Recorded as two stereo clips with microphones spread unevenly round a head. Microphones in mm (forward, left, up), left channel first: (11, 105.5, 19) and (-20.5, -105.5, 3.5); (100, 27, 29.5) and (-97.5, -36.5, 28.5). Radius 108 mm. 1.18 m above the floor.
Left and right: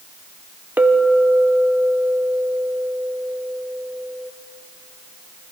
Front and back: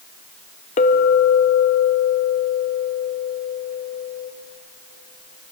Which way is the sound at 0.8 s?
15° right.